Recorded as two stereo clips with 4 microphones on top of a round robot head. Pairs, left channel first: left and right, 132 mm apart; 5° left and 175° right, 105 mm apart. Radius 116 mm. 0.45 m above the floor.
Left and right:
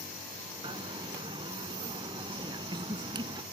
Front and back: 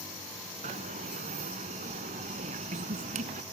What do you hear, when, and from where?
0.6 s a dropped coin: 155° right